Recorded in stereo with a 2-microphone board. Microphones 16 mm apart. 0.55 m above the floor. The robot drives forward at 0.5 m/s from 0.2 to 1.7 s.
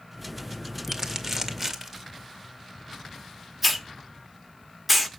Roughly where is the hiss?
Centre.